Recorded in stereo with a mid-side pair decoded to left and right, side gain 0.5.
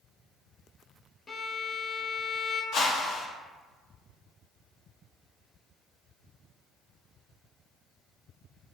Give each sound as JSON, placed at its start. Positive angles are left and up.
{"t": 1.3, "sound": "a violin", "azimuth_deg": 30, "distance_m": 0.5}
{"t": 2.7, "sound": "a whoosh", "azimuth_deg": 60, "distance_m": 0.8}